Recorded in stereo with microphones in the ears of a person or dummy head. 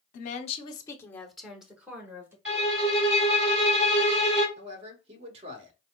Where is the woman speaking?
50° left (ahead or behind), 0.7 m; by 2.4 s 15° right (ahead or behind), 1.2 m.